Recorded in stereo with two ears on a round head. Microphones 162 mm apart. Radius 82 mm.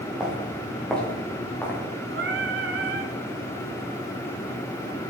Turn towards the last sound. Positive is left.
turn(degrees=-60)  # may be behind; listen again after turning